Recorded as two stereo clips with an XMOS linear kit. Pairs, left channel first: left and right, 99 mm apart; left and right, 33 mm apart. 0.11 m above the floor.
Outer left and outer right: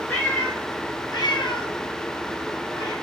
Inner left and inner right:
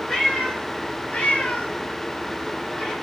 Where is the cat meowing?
15° left (ahead or behind), 1.2 m; by 2.9 s 40° left (ahead or behind), 1.3 m.